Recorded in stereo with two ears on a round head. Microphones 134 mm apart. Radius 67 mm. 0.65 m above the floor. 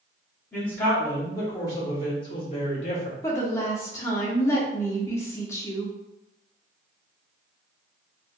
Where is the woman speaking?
20° left (ahead or behind), 0.6 m.